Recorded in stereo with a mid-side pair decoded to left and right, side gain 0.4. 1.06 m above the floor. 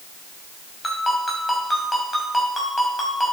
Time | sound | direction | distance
0.8 | a ringtone | 15° left | 5.5 m